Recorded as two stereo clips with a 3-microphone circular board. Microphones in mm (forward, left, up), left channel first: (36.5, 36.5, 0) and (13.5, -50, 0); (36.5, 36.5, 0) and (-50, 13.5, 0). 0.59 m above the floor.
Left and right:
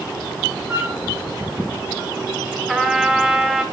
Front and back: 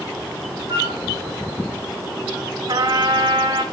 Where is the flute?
175° left, 4 m.